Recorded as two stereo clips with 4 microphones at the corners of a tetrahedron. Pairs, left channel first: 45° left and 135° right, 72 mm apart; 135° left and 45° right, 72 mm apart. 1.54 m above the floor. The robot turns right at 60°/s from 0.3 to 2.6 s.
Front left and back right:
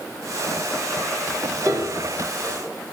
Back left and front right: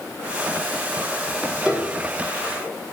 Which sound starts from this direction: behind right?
A piano, at 1.6 s.